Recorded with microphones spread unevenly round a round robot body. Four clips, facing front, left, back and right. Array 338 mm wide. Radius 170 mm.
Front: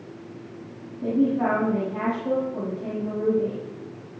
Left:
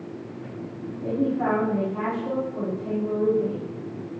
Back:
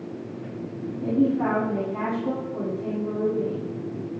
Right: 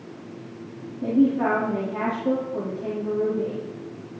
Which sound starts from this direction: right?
A man speaking, at 1.0 s.